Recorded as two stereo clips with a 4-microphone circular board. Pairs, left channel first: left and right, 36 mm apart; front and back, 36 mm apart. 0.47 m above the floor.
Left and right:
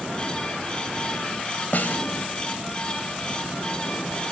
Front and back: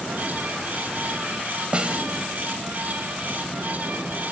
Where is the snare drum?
125° left, 1.9 m.